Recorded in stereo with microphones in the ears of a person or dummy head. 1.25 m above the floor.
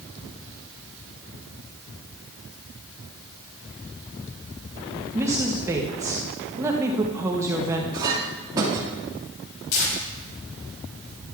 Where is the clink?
20° right (ahead or behind), 1.8 m.